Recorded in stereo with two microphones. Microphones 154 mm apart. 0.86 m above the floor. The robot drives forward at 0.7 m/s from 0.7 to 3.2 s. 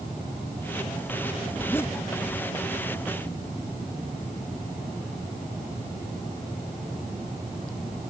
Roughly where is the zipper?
Centre.